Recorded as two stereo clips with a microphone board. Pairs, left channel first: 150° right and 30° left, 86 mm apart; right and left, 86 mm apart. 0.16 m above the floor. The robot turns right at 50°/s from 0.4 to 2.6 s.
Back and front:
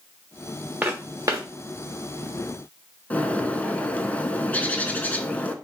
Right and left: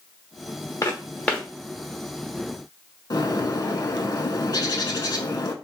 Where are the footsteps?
40° right, 0.9 m; by 1.5 s 10° right, 0.9 m.